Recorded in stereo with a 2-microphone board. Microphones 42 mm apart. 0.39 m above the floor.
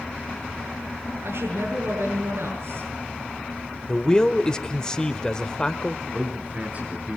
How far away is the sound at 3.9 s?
About 1.1 m.